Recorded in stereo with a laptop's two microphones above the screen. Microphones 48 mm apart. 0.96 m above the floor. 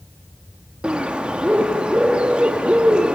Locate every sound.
0.8 s a bird: 20° right (ahead or behind), 1.3 m